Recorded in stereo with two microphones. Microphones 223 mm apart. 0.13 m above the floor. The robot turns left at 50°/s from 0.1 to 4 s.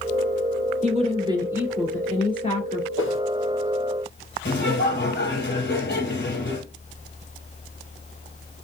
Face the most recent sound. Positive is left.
turn(degrees=55)  # may be behind; listen again after turning